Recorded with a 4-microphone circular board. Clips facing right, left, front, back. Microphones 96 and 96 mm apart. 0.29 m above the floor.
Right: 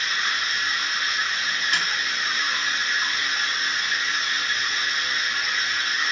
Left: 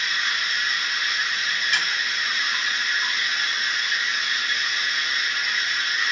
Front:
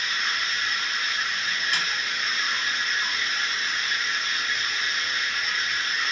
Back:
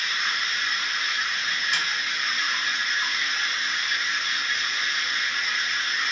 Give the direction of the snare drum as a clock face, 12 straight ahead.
1 o'clock.